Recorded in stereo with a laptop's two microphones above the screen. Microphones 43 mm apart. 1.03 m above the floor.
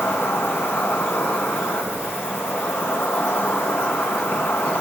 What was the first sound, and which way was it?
An insect, 65° left (ahead or behind).